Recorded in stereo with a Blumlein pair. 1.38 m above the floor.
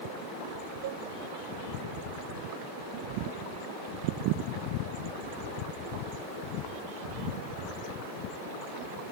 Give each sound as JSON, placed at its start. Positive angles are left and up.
{"t": 0.8, "sound": "a cowbell", "azimuth_deg": -55}